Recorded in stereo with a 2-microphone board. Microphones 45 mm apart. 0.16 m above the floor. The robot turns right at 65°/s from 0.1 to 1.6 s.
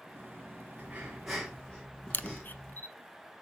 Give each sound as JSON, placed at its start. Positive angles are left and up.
{"t": 0.8, "sound": "breathing", "azimuth_deg": -35, "distance_m": 2.5}
{"t": 2.1, "sound": "a camera shutter", "side_deg": 50, "distance_m": 0.6}